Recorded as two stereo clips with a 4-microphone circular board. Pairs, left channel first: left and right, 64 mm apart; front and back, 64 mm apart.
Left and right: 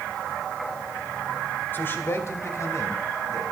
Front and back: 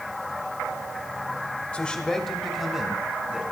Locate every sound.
1.7 s a man speaking: 55° left, 1.7 m; by 3.4 s 105° left, 2.5 m